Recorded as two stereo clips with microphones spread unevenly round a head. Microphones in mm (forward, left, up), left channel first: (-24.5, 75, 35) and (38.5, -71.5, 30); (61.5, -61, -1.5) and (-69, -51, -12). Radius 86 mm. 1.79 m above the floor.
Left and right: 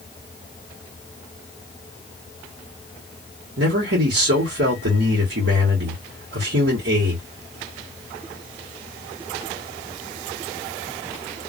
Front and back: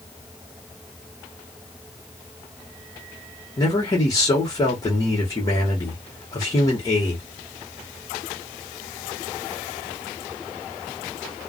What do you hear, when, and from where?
3.6 s a man speaking: 65° right, 1.2 m